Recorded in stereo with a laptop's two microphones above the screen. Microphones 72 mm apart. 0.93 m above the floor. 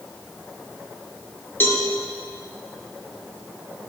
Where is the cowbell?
30° left (ahead or behind), 0.9 m.